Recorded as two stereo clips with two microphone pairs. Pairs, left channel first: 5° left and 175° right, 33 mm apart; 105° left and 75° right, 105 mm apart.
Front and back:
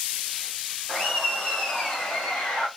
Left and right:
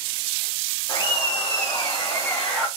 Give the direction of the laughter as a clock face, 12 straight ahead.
9 o'clock.